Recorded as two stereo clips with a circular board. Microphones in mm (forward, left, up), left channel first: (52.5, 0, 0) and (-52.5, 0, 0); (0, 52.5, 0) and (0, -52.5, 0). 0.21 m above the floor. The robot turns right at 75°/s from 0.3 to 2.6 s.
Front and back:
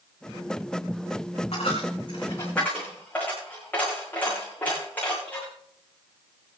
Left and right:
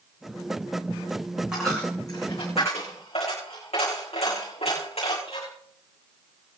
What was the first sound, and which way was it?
A dropped coin, 5° right.